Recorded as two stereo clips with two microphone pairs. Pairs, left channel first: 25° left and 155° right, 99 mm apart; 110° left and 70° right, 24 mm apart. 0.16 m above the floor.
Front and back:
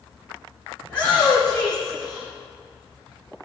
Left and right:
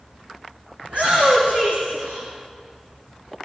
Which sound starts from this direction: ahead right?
A shout, at 0.8 s.